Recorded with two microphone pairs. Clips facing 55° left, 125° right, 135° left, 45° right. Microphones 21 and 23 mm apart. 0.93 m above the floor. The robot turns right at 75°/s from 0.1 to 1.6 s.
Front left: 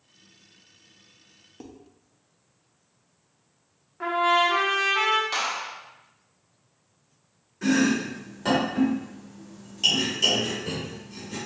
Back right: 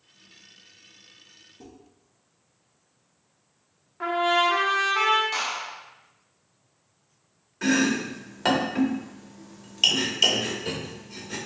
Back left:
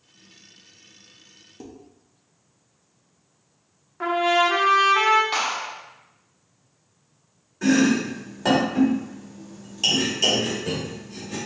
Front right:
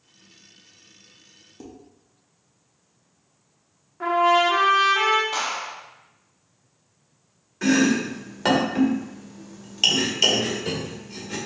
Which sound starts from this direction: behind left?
A clap, at 5.3 s.